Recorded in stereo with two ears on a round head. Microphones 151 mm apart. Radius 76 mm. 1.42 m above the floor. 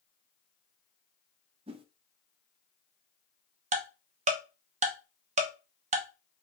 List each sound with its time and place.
1.7 s a whoosh: 35° right (ahead or behind), 0.5 m
3.7 s ticking: 45° right (ahead or behind), 0.9 m